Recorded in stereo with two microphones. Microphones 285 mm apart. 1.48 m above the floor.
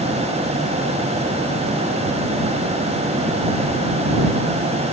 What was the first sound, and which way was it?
Only background noise.